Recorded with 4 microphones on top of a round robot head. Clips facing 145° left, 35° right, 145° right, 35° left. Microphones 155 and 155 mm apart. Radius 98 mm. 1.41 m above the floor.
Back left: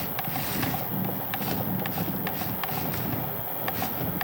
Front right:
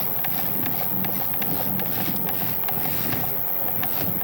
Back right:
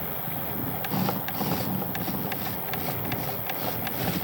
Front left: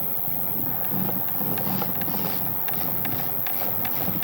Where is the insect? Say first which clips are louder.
Even, back right 2 dB; 10° left, 0.8 m.